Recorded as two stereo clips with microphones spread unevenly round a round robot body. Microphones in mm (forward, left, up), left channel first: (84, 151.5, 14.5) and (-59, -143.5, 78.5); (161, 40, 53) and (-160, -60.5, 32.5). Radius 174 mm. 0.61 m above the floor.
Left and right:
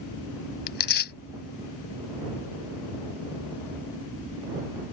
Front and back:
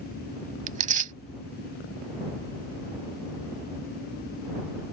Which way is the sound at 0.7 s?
130° left.